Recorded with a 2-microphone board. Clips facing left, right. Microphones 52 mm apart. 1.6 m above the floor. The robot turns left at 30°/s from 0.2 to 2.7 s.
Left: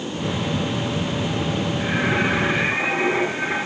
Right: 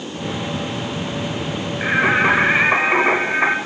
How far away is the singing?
About 9 m.